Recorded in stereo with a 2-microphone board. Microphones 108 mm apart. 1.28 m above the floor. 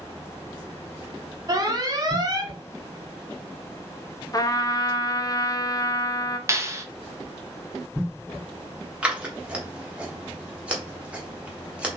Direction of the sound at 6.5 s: 30° right (ahead or behind).